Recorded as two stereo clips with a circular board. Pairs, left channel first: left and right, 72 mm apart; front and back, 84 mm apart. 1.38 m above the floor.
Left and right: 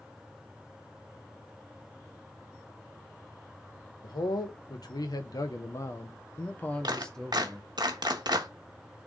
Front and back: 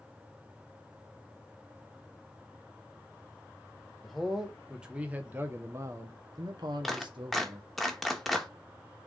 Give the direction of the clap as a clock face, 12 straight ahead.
3 o'clock.